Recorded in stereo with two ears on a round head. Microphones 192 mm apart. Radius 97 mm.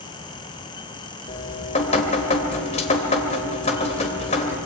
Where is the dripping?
30° left (ahead or behind), 2.5 m.